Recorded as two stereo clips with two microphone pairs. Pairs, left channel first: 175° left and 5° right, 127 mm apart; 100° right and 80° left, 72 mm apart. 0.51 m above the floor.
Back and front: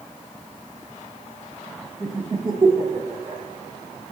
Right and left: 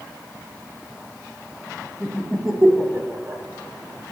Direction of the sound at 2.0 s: 120° right.